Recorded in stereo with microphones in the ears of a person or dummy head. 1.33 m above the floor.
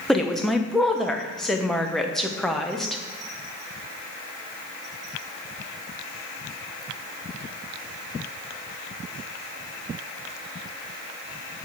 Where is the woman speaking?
5° left (ahead or behind), 0.7 m.